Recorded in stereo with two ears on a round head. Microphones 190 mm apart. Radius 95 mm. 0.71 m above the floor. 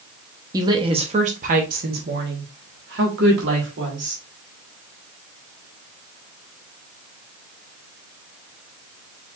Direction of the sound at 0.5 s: 15° right (ahead or behind).